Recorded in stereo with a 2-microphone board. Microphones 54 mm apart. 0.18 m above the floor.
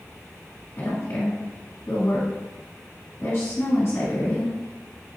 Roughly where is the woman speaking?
Left.